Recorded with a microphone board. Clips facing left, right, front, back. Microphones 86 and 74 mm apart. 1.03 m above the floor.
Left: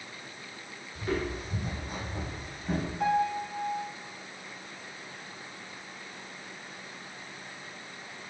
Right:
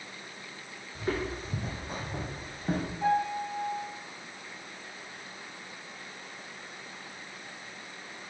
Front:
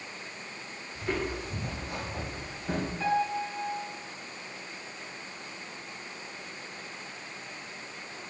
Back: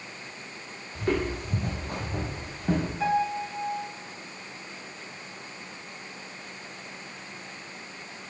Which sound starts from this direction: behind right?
Footsteps, at 0.9 s.